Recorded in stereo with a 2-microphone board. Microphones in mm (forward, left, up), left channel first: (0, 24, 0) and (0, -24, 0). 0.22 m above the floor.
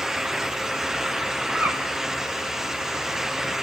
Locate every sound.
1.5 s a bird: 35° right (ahead or behind), 1.5 m